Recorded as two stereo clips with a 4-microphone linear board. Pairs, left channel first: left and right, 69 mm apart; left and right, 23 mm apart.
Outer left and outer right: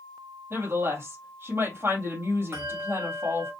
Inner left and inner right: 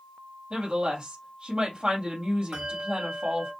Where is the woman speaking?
40° right (ahead or behind), 3 m.